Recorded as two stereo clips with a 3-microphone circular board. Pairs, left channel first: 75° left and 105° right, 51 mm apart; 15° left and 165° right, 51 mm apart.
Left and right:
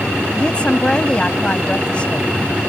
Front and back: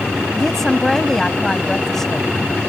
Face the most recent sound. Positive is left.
turn(degrees=80)